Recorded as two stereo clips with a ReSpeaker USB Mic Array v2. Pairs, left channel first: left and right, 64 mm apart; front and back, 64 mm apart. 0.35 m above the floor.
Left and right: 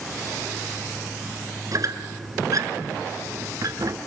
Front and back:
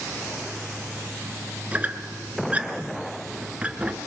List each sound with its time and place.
1.7 s a squeak: 110° right, 1.6 m